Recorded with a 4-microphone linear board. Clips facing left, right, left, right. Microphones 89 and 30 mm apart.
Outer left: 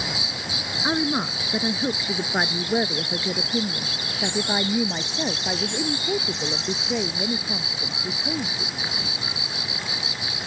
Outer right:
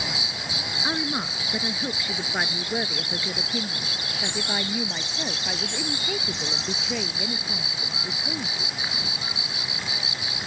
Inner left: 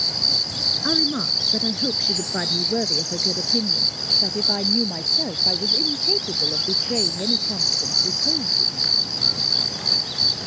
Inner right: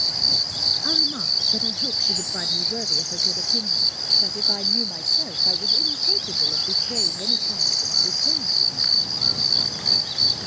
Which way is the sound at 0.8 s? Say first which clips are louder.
Outer left 5 dB, inner left 1 dB; 15° left (ahead or behind).